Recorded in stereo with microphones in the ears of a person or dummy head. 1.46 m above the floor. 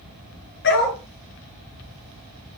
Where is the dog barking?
60° left (ahead or behind), 8.5 m.